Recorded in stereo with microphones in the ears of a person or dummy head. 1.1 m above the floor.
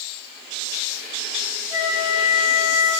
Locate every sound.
1.7 s a flute: 20° right (ahead or behind), 5 m